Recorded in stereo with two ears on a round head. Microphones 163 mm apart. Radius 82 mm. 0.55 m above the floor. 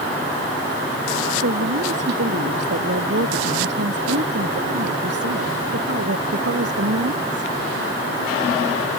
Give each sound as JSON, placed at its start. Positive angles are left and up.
{"t": 1.4, "sound": "a woman speaking", "side_deg": -70}